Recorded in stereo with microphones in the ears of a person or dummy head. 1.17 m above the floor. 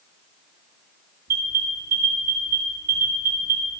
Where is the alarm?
45° right (ahead or behind), 2.5 m.